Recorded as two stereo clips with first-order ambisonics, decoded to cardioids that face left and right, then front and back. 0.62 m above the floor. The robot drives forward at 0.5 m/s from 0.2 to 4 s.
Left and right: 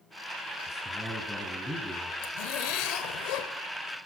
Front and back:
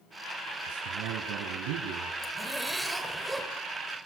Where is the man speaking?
175° left, 5 m.